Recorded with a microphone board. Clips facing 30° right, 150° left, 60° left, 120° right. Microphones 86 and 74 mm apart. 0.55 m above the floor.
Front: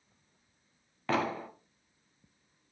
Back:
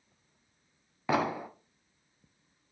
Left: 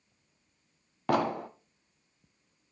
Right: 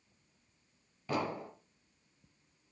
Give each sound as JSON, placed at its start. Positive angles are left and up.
{"t": 1.1, "sound": "an explosion", "azimuth_deg": 70, "distance_m": 0.9}